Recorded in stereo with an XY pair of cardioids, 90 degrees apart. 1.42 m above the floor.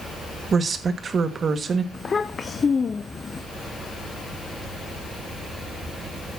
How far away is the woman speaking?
About 1.8 m.